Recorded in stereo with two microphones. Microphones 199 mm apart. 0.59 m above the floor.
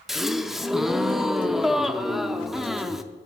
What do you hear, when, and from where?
0.1 s a gasp: centre (ahead or behind), 0.6 m